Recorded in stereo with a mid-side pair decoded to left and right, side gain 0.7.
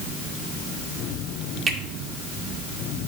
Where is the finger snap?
35° right, 2.5 m.